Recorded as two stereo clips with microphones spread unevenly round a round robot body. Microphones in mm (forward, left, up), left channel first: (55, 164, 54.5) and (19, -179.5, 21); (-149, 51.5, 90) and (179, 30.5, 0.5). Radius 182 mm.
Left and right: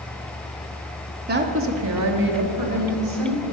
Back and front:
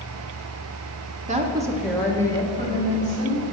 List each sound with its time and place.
1.3 s a woman speaking: 50° right, 1.0 m; by 3.4 s 115° right, 2 m